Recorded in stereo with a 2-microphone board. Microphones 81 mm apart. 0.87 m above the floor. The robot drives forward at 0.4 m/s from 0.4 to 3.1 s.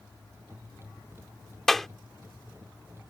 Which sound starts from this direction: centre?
A clap, at 1.7 s.